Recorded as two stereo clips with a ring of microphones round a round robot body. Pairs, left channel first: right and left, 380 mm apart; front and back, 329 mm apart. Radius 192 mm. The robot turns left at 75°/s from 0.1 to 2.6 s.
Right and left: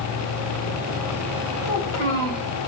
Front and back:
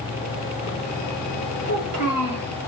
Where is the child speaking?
130° right, 1.3 m; by 2.5 s 165° left, 1.3 m.